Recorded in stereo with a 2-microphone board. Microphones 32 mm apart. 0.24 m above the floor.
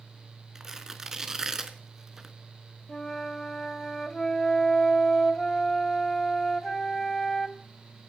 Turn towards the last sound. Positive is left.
turn(degrees=15)  # may be behind; listen again after turning